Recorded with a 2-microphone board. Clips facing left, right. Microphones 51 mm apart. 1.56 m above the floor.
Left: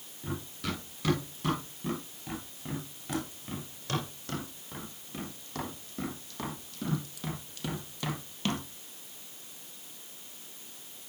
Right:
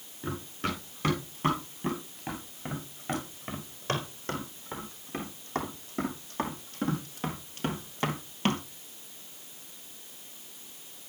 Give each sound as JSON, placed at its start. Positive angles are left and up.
{"t": 0.2, "sound": "running footsteps", "side_deg": -40, "distance_m": 7.5}